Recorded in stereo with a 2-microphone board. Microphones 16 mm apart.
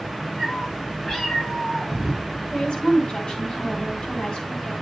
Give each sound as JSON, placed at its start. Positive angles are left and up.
{"t": 0.4, "sound": "a cat meowing", "side_deg": 50, "distance_m": 6.5}
{"t": 2.5, "sound": "a woman speaking", "side_deg": 60, "distance_m": 3.0}